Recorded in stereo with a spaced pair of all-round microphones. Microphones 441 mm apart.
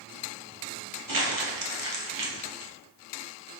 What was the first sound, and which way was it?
Crumpling, 50° right (ahead or behind).